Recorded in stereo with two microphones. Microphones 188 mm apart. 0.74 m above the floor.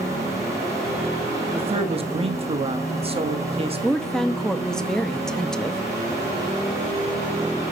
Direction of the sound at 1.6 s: 30° right (ahead or behind).